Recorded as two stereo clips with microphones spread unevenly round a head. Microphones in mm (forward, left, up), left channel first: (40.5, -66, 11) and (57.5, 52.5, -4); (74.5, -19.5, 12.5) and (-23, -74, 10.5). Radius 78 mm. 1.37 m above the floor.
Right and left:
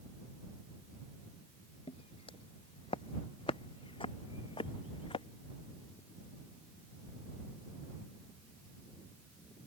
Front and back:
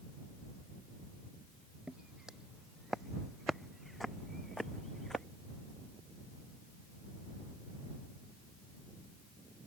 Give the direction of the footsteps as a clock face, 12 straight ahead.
2 o'clock.